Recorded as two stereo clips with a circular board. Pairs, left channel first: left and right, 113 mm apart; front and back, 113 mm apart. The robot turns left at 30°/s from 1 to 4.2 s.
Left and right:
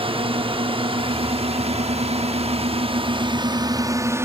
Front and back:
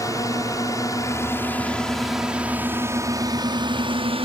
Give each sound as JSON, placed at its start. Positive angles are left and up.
{"t": 0.0, "sound": "a drone", "azimuth_deg": -60}